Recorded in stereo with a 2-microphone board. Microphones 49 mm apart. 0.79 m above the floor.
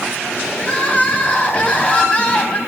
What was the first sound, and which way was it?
Crying, 30° left (ahead or behind).